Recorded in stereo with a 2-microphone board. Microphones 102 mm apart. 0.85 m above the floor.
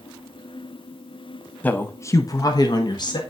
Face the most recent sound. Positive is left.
turn(degrees=45)  # may be behind; listen again after turning